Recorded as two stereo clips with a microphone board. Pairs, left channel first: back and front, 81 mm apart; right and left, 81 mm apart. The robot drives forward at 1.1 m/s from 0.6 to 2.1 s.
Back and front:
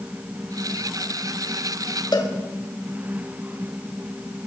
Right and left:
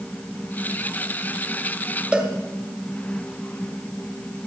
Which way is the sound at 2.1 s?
165° left.